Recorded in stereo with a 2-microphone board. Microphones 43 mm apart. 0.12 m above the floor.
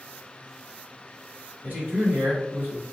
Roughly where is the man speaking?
Right.